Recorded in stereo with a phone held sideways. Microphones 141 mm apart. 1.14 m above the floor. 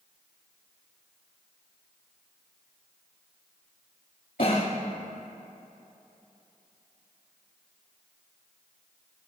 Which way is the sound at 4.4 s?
75° left (ahead or behind).